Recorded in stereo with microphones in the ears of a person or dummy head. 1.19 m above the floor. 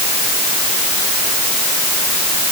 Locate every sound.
Only background noise.